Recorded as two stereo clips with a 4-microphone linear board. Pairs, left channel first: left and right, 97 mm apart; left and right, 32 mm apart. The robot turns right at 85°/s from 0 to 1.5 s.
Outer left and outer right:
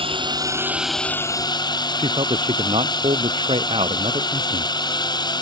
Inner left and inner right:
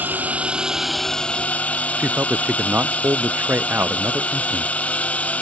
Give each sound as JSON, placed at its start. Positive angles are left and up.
{"t": 0.0, "sound": "a drone", "azimuth_deg": -80}
{"t": 2.0, "sound": "a man speaking", "side_deg": -80}